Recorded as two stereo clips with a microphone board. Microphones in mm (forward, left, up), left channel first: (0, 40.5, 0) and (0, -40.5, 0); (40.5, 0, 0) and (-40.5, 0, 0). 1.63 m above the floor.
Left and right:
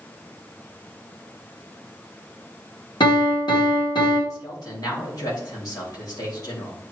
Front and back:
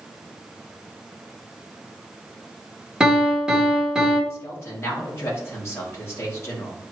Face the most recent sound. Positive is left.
turn(degrees=55)